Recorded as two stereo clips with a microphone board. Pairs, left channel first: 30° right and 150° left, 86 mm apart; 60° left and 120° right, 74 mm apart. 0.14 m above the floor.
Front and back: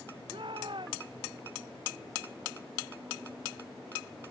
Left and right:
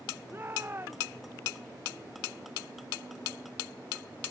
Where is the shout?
Straight behind.